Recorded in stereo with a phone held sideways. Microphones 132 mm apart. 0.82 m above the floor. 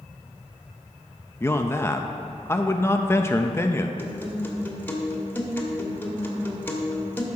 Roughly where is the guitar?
Centre.